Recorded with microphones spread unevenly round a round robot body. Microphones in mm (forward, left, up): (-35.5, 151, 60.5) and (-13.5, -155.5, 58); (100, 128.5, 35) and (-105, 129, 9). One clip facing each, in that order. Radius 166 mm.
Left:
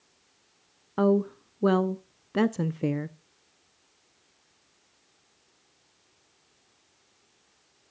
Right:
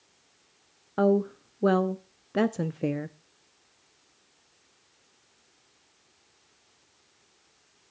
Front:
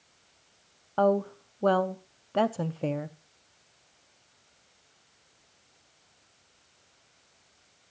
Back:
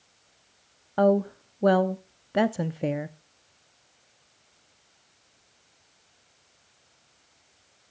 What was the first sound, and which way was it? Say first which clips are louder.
A woman speaking: even, back 3 dB; 165° left.